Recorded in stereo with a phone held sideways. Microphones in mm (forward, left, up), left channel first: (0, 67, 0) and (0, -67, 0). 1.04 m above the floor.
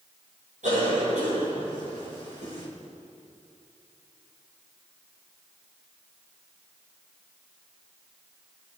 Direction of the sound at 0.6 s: 70° right (ahead or behind).